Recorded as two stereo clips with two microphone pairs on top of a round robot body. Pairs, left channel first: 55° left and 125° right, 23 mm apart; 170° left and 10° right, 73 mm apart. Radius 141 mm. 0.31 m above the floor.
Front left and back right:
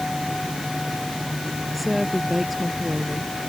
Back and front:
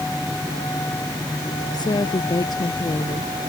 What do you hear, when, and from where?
1.7 s a woman speaking: 155° left